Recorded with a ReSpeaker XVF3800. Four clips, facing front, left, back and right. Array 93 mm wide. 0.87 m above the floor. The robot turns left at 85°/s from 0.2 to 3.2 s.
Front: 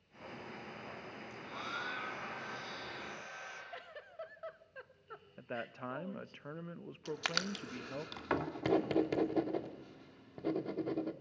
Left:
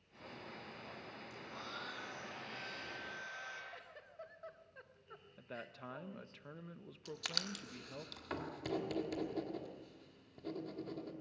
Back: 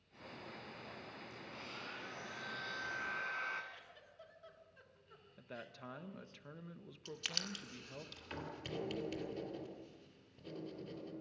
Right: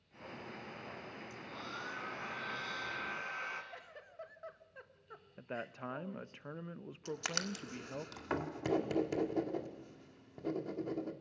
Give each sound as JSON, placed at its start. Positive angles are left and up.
{"t": 1.3, "sound": "a hair dryer", "azimuth_deg": 30, "distance_m": 3.0}
{"t": 3.7, "sound": "a giggle", "azimuth_deg": -10, "distance_m": 1.0}
{"t": 5.4, "sound": "a man speaking", "azimuth_deg": -35, "distance_m": 0.5}
{"t": 7.0, "sound": "writing", "azimuth_deg": -15, "distance_m": 1.5}